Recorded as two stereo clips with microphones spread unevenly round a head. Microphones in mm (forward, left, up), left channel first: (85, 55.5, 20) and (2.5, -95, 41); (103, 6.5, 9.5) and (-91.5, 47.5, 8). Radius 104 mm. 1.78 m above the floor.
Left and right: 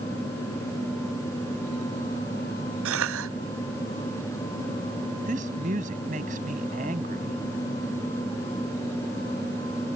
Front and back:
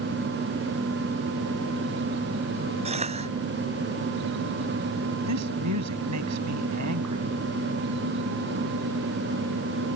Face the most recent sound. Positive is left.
turn(degrees=-175)